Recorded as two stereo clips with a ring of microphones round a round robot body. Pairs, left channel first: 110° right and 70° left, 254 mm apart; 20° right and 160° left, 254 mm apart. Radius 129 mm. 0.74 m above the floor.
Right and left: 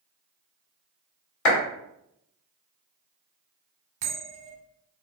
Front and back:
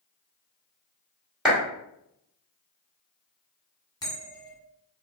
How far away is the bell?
About 1.4 m.